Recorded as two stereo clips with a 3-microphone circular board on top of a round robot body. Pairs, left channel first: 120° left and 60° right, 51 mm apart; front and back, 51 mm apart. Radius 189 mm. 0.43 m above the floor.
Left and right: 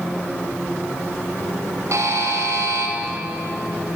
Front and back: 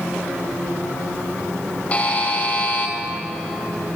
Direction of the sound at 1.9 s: 60° right.